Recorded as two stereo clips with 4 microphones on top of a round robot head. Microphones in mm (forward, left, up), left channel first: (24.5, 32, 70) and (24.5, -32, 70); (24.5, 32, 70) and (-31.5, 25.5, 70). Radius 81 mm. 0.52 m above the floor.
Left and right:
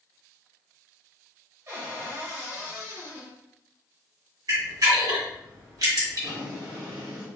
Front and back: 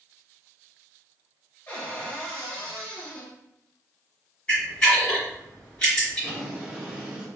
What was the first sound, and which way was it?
A cupboard door, 55° right.